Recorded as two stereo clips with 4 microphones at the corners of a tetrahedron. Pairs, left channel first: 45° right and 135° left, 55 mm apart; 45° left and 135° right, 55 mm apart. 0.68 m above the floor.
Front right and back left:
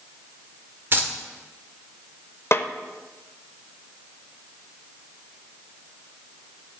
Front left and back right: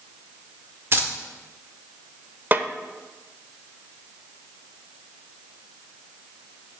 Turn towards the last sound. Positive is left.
turn(degrees=-85)